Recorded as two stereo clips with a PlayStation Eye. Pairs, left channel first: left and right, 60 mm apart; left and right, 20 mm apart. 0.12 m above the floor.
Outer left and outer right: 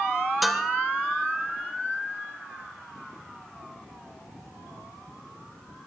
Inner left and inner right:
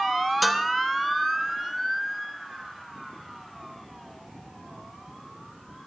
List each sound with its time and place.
0.4 s dishes clattering: centre (ahead or behind), 1.1 m